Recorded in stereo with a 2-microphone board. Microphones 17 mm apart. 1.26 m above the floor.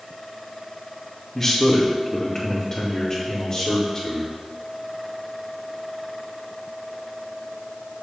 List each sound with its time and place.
1.4 s a man speaking: 15° left (ahead or behind), 2 m; by 4.3 s 30° left (ahead or behind), 4.5 m